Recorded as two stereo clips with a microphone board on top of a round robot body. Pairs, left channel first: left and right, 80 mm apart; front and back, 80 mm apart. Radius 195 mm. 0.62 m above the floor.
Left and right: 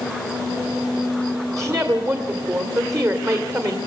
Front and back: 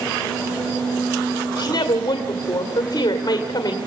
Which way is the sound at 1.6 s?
45° right.